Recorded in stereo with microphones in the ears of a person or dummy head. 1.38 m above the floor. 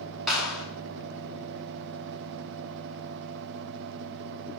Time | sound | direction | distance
0.3 | a clap | centre (ahead or behind) | 3 m